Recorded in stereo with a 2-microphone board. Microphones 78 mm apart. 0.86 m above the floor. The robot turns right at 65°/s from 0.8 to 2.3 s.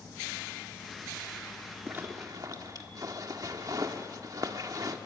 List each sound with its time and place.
1.9 s a zipper: 25° right (ahead or behind), 1.5 m; by 5.0 s 50° right (ahead or behind), 1.5 m